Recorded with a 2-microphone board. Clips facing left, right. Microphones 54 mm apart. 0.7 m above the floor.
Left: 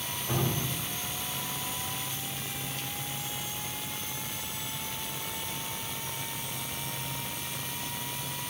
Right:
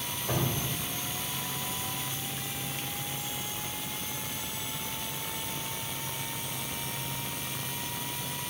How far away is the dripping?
About 2 m.